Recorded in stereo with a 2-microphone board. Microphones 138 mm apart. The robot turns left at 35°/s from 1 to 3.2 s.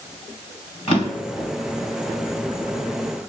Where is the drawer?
45° left (ahead or behind), 1.3 m; by 1.5 s 40° left (ahead or behind), 1.3 m.